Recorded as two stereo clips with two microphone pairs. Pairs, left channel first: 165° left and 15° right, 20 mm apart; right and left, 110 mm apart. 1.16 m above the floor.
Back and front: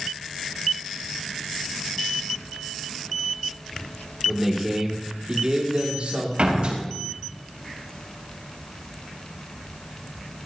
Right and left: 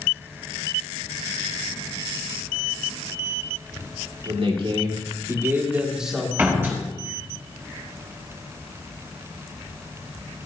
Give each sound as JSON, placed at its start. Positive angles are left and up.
{"t": 4.2, "sound": "a man speaking", "azimuth_deg": 65, "distance_m": 3.0}
{"t": 6.4, "sound": "a door slam", "azimuth_deg": 20, "distance_m": 4.5}